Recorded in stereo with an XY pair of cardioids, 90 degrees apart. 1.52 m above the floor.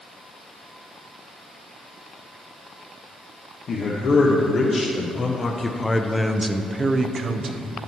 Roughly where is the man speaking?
Ahead left.